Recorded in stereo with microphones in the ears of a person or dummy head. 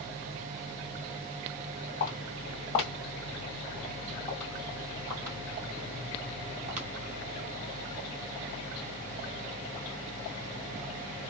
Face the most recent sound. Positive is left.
turn(degrees=-35)  # may be behind; listen again after turning